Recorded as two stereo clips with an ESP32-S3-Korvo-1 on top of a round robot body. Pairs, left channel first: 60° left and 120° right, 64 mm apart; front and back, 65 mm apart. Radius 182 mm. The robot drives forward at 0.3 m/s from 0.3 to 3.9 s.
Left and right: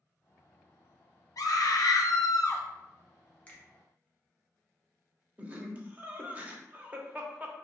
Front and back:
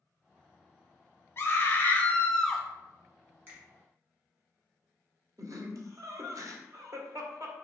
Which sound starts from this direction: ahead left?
A scream, at 1.4 s.